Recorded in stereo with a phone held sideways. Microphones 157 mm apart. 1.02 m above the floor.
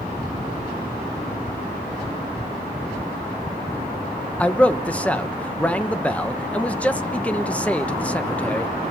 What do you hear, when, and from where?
4.4 s a man speaking: 10° left (ahead or behind), 1.0 m